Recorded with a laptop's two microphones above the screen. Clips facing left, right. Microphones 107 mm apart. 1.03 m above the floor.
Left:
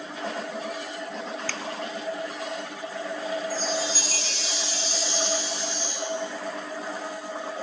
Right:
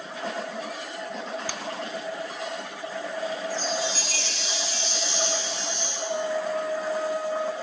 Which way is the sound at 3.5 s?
35° left (ahead or behind).